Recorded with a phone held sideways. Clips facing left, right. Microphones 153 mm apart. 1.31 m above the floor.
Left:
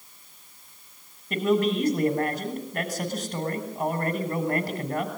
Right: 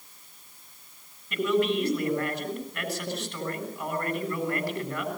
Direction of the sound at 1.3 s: 50° left (ahead or behind).